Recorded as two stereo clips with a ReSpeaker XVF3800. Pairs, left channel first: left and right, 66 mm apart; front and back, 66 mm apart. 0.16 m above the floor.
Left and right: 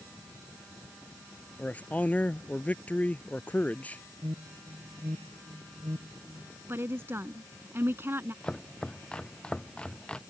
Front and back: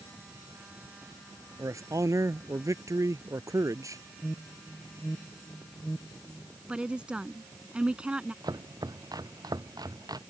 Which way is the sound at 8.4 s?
165° left.